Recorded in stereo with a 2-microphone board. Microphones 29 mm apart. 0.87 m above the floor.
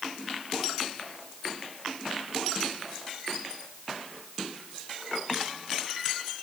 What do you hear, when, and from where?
Only background noise.